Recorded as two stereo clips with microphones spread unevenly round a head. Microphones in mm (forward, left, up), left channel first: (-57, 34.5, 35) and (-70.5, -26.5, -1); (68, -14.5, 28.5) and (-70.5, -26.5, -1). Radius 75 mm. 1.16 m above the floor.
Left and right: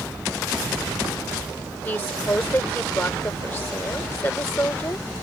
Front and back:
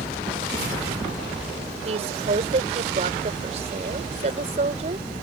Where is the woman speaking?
135° left.